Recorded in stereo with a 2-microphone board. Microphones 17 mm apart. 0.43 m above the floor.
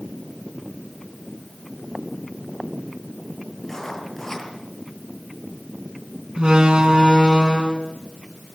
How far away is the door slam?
About 3.5 m.